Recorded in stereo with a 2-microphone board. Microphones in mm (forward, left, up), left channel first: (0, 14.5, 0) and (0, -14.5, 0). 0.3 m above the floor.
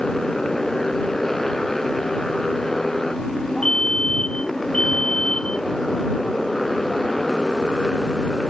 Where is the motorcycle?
15° left (ahead or behind); by 8.5 s 5° left (ahead or behind).